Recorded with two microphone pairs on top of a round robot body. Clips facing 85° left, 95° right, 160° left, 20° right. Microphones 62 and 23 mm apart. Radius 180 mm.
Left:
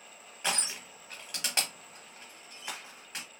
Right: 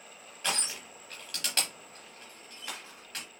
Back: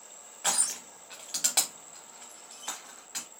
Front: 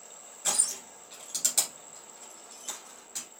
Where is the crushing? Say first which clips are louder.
Even, back 1 dB; 150° left, 0.8 m.